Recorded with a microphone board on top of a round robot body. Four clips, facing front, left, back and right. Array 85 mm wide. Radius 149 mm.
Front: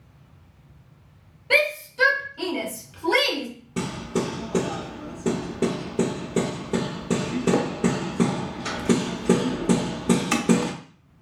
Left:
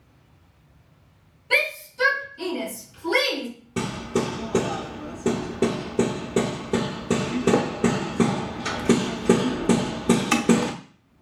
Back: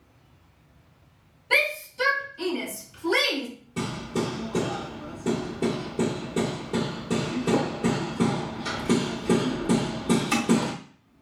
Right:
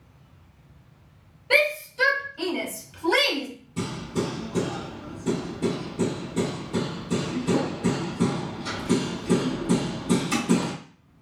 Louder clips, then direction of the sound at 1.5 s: Right 3 dB, front 4 dB; 25° right.